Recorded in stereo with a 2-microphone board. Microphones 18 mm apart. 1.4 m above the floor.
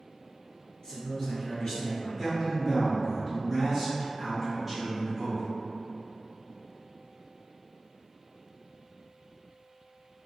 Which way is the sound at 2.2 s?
5° right (ahead or behind).